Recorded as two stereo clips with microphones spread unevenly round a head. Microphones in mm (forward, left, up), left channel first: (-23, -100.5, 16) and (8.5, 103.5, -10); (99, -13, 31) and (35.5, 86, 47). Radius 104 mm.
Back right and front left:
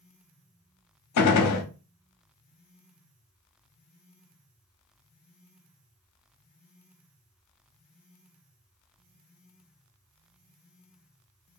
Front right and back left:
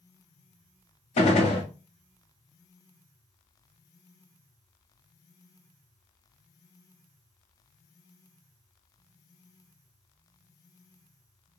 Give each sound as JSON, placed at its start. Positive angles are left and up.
{"t": 1.2, "sound": "a gunshot", "azimuth_deg": -95, "distance_m": 0.6}